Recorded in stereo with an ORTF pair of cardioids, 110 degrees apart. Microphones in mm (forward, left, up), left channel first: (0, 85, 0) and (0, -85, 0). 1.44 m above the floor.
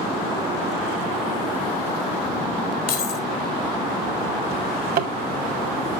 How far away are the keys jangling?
About 2.5 m.